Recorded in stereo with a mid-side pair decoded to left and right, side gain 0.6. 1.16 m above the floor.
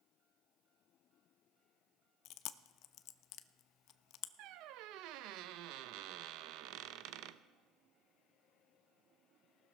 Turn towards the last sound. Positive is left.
turn(degrees=-70)